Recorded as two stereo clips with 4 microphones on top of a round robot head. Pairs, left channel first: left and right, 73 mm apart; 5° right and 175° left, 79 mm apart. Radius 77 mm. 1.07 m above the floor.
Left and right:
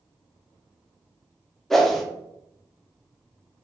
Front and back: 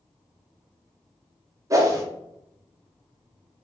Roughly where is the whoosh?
Behind.